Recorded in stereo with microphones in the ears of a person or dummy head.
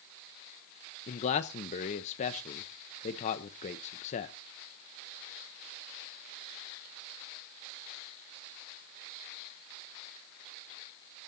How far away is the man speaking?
About 0.7 m.